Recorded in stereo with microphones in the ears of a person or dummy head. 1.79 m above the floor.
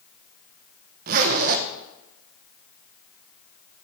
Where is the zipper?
50° right (ahead or behind), 1.1 m.